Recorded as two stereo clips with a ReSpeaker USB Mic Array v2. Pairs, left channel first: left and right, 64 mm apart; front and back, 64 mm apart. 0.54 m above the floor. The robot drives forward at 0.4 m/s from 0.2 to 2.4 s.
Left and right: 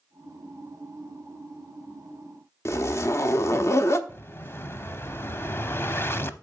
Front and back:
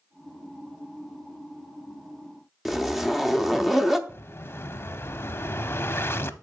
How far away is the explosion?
About 0.5 m.